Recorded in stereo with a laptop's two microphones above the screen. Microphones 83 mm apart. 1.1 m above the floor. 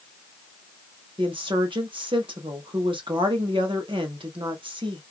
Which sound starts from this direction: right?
A woman speaking, at 1.2 s.